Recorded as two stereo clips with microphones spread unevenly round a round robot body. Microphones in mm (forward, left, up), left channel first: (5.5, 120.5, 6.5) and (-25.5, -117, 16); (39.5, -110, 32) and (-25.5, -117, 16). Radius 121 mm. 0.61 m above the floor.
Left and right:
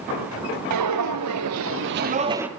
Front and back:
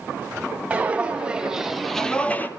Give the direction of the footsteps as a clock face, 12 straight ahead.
3 o'clock.